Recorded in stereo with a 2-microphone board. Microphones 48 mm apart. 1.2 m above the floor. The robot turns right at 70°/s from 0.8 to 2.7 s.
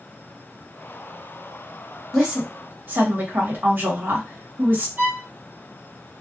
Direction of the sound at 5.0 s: 45° right (ahead or behind).